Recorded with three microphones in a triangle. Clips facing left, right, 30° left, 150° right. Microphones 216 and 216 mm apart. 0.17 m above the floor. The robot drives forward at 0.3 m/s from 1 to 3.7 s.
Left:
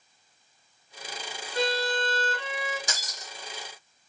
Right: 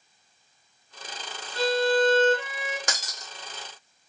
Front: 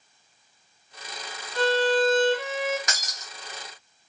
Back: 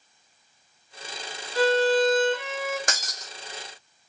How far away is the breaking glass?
About 0.8 m.